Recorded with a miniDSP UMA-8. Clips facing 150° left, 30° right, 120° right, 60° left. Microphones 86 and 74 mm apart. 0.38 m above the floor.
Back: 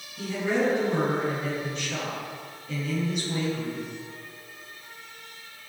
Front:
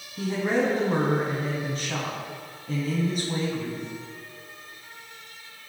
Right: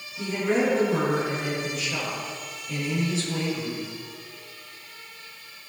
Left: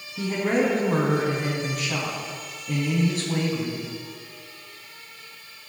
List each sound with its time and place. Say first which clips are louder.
0.2 s a woman speaking: front 1 dB, left 1 dB; 20° left, 3 m